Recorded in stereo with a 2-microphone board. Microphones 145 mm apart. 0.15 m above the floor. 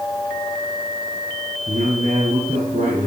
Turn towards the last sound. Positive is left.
turn(degrees=-60)  # may be behind; listen again after turning